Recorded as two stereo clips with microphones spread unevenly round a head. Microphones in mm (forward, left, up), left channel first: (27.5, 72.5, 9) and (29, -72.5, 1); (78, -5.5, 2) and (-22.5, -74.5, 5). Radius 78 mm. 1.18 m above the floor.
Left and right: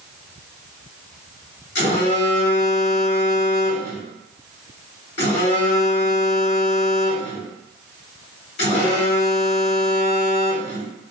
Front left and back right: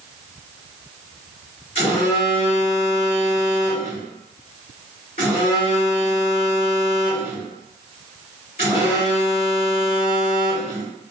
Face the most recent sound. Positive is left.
turn(degrees=85)